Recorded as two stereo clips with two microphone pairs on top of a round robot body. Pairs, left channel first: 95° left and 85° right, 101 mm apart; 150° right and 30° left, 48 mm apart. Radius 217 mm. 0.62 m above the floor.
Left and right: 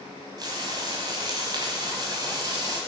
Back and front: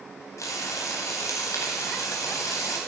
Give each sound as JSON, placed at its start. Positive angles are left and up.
{"t": 0.4, "sound": "frying", "azimuth_deg": -140, "distance_m": 0.7}